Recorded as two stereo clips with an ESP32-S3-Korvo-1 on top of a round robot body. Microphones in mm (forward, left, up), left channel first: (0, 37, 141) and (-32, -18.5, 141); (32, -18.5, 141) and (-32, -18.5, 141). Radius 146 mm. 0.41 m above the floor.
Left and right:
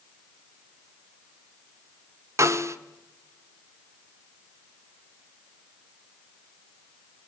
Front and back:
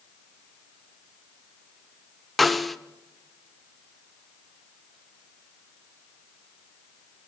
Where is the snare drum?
90° right, 1.2 m.